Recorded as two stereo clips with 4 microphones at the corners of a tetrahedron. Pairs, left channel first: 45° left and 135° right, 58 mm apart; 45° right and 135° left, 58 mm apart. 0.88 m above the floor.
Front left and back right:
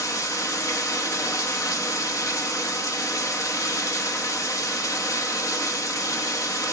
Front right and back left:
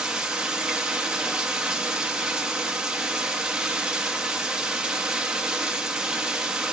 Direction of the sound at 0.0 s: 60° left.